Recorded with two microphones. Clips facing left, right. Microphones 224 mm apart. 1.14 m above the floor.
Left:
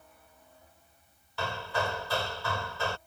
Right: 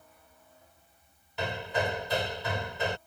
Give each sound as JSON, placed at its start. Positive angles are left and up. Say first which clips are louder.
{"t": 1.4, "sound": "hammering", "louder": "right 2 dB", "side_deg": -20}